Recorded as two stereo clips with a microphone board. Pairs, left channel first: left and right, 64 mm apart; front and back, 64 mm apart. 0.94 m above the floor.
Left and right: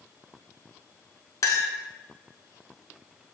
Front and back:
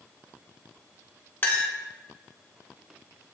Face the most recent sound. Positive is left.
turn(degrees=60)